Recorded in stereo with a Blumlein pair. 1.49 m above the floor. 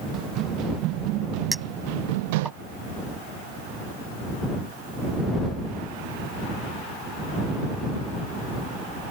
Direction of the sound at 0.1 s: 35° right.